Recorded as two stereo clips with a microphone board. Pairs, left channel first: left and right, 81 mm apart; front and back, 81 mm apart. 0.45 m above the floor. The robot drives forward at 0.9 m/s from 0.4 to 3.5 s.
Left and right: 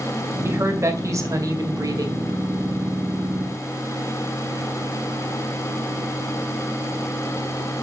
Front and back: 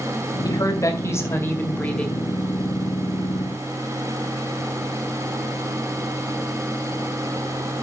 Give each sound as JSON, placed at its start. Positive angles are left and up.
{"t": 0.4, "sound": "a woman speaking", "azimuth_deg": -35, "distance_m": 2.5}